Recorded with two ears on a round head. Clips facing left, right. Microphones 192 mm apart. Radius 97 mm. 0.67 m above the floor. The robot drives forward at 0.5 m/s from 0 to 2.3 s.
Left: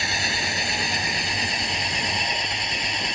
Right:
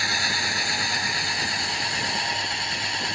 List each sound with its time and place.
0.0 s an engine running: 20° left (ahead or behind)